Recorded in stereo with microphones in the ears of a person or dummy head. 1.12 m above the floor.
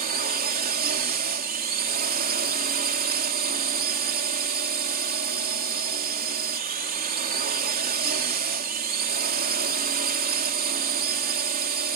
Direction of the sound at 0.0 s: 50° right (ahead or behind).